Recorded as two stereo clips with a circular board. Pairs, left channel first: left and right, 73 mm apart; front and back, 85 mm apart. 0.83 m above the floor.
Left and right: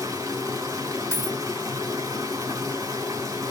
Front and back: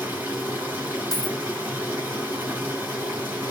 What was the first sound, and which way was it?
Running water, 115° right.